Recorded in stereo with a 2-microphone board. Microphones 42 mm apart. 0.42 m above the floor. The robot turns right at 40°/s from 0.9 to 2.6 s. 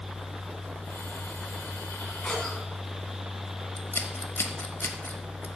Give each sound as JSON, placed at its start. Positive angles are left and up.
{"t": 2.2, "sound": "a cough", "side_deg": 20, "distance_m": 4.0}
{"t": 3.8, "sound": "scissors", "side_deg": 60, "distance_m": 1.1}